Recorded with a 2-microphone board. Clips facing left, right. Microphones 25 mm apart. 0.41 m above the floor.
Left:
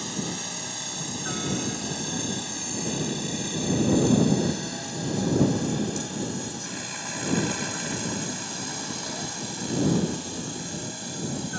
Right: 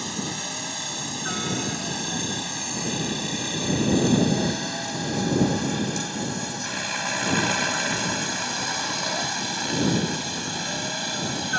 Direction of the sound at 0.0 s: 15° right (ahead or behind).